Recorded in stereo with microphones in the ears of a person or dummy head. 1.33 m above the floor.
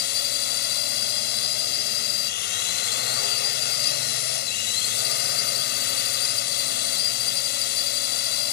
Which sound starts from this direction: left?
A drone, at 0.0 s.